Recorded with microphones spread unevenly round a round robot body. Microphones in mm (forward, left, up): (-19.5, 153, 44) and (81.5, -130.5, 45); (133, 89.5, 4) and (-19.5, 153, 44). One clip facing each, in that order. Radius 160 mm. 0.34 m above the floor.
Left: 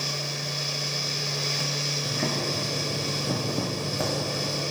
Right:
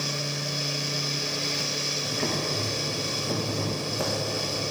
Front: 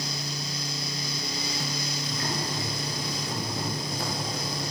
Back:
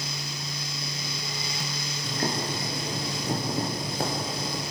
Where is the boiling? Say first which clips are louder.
Even, back 5 dB; 115° left, 5.5 m.